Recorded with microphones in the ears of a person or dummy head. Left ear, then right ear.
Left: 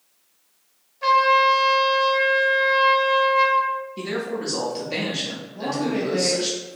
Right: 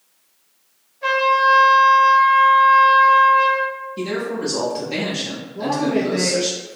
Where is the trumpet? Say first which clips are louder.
Even; 30° left (ahead or behind), 0.7 m.